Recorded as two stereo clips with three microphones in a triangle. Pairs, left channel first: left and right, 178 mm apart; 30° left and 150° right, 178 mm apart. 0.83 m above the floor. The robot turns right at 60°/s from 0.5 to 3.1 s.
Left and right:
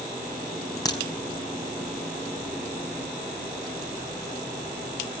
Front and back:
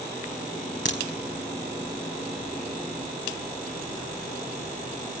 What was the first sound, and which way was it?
A crack, 20° left.